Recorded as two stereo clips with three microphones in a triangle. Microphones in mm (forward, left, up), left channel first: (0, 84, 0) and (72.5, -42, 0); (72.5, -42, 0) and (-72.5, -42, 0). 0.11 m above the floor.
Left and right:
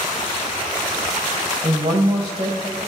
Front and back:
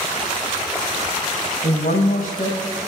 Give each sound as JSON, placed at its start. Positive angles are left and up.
{"t": 1.6, "sound": "a woman speaking", "azimuth_deg": -10, "distance_m": 4.5}